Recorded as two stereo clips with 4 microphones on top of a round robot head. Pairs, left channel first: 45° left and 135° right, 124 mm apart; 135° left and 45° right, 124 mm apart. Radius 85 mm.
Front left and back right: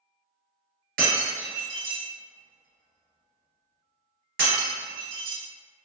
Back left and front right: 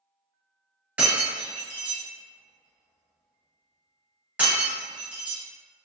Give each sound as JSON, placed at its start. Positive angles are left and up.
{"t": 1.0, "sound": "breaking glass", "azimuth_deg": -120, "distance_m": 1.3}